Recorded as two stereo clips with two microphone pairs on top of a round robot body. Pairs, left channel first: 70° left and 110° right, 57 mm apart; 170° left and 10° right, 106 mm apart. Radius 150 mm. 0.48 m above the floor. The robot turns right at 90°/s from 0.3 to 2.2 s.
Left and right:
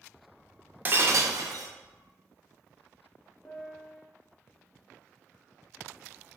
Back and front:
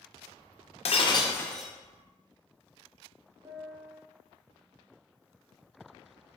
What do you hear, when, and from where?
0.8 s breaking glass: 165° right, 0.6 m; by 1.7 s 90° right, 0.6 m
3.5 s a piano: 35° left, 1.0 m